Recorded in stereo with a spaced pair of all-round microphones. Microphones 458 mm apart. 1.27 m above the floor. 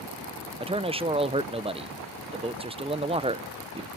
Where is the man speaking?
10° right (ahead or behind), 0.7 m.